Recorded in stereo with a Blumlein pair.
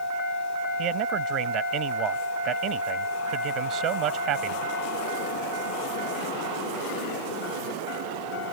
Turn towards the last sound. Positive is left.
turn(degrees=-35)